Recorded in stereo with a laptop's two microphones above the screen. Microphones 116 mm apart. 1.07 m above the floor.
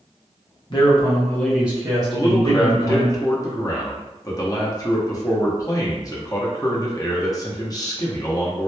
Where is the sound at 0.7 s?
45° left (ahead or behind), 0.8 m; by 3.1 s 65° right (ahead or behind), 1.1 m.